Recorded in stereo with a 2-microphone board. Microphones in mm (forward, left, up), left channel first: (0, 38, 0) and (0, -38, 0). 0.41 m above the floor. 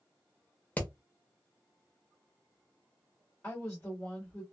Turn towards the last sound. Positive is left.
turn(degrees=25)  # may be behind; listen again after turning